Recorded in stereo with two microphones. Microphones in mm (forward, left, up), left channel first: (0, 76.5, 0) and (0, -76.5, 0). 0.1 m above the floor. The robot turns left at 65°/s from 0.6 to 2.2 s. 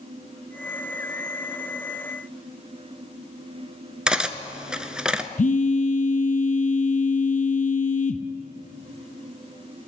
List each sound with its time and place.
4.1 s cutlery clinking: 5° right (ahead or behind), 0.6 m
5.4 s a phone buzzing: 60° left (ahead or behind), 0.7 m